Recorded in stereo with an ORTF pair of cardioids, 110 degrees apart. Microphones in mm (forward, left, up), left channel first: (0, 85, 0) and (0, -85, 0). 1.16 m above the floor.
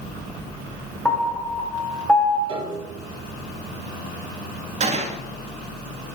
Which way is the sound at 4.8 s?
40° right.